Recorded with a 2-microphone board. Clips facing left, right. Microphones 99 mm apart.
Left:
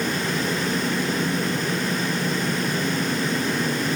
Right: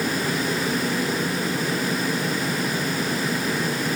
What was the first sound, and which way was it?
Only background noise.